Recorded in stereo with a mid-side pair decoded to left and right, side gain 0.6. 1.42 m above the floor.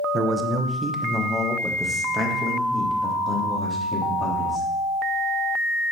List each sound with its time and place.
0.1 s a man speaking: 30° right, 1.2 m; by 4.7 s 30° left, 3.5 m